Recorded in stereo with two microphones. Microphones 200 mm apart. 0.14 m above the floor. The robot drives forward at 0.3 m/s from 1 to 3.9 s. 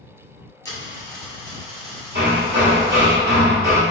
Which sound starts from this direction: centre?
A dropped coin, at 0.7 s.